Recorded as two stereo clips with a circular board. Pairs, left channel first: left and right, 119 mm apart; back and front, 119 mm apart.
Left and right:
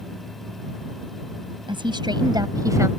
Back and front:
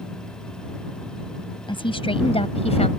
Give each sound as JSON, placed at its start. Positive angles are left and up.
{"t": 1.7, "sound": "a woman speaking", "azimuth_deg": -135}